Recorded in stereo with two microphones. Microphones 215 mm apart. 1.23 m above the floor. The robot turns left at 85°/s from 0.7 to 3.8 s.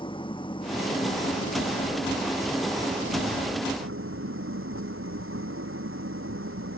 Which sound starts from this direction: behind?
An engine running, at 0.0 s.